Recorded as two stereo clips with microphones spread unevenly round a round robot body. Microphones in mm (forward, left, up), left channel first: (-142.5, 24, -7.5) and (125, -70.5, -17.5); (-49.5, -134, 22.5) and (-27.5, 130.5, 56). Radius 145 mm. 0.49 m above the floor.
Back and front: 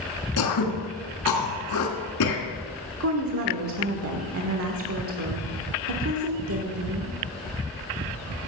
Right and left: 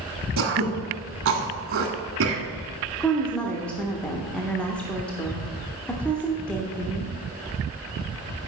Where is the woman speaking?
15° right, 1.2 m.